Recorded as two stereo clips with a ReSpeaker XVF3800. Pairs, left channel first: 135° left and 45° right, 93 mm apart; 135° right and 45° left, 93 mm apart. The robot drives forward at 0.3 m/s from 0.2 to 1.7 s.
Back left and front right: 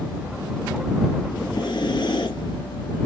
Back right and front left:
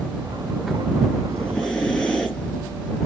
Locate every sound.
1.3 s breathing: 150° left, 3 m